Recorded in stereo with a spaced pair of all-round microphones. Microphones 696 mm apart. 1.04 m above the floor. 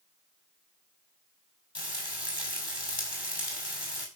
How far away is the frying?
About 5 m.